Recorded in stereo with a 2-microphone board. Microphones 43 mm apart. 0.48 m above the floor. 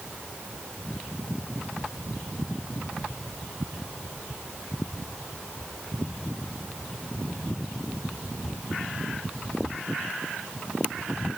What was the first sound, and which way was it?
Only background noise.